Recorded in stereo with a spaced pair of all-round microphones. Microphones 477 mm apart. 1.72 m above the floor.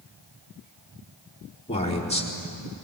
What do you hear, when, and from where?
1.7 s a man speaking: 15° left (ahead or behind), 3.5 m